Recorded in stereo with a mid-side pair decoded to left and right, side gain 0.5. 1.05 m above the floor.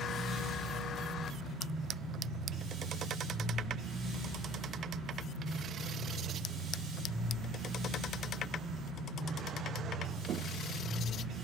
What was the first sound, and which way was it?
A machine running, 60° right.